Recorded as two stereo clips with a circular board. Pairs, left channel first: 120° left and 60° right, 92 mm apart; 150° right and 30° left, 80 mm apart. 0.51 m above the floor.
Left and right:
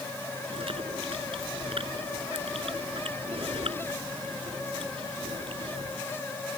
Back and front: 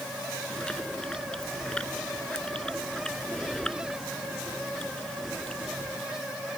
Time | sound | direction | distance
0.5 | chewing | 70° right | ?